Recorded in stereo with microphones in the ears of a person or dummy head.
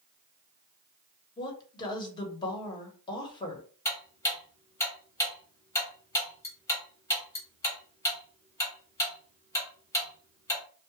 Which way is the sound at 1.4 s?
25° left (ahead or behind).